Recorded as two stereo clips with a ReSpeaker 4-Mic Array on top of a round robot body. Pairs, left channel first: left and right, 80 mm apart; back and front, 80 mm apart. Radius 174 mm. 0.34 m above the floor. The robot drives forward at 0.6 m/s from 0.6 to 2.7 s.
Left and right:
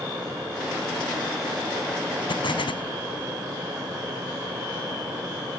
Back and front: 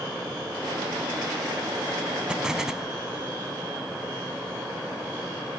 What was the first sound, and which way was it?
An explosion, 80° left.